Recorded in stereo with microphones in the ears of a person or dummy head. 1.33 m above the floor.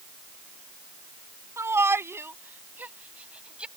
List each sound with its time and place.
1.6 s a shout: 15° right (ahead or behind); by 3.7 s 5° right (ahead or behind)